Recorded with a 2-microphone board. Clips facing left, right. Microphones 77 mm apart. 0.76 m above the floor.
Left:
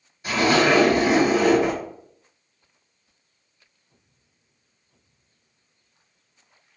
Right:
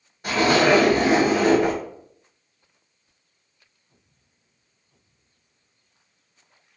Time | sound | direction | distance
0.2 | a zipper | 55° right (ahead or behind) | 1.6 m